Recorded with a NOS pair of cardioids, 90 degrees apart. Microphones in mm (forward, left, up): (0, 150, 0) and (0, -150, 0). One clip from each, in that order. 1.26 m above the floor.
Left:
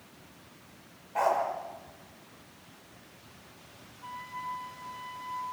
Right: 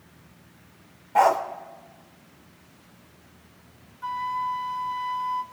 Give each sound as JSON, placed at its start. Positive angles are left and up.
{"t": 1.1, "sound": "a dog barking", "azimuth_deg": -60, "distance_m": 2.0}
{"t": 4.0, "sound": "a flute", "azimuth_deg": -55, "distance_m": 1.5}